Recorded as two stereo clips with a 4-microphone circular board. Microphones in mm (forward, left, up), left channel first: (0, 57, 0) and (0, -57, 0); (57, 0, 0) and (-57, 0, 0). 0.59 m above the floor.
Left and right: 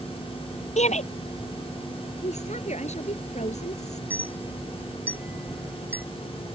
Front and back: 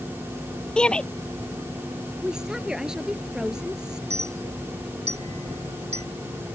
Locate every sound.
0.8 s a shout: 80° left
2.2 s a woman speaking: 95° left
4.1 s a clink: 160° right